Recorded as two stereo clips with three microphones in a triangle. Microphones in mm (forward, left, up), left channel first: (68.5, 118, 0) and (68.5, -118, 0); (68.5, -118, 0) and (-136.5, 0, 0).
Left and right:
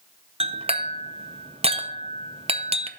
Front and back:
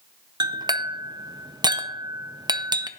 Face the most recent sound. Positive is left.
turn(degrees=-140)